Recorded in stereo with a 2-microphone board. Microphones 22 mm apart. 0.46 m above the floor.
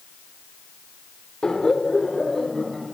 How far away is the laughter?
About 1.1 m.